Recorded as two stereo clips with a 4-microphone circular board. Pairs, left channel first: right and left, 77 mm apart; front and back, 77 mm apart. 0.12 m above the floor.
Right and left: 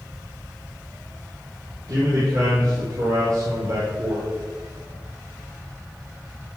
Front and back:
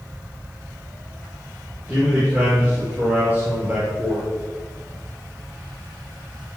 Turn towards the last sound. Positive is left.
turn(degrees=115)